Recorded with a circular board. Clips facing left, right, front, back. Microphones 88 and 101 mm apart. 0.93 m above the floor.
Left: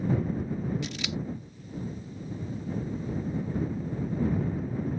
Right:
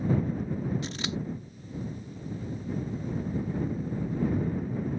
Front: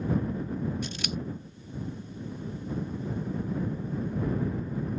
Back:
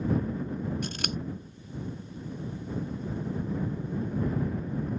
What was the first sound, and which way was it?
Scissors, 145° right.